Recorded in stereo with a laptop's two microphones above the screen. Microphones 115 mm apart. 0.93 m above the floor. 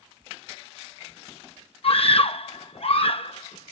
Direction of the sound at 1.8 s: 55° left (ahead or behind).